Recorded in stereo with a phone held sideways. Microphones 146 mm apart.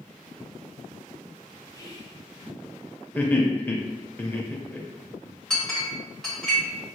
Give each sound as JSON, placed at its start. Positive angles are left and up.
{"t": 1.7, "sound": "whispering", "side_deg": 25, "distance_m": 0.7}
{"t": 3.1, "sound": "laughter", "side_deg": 10, "distance_m": 0.7}
{"t": 5.5, "sound": "a clink", "side_deg": 5, "distance_m": 1.4}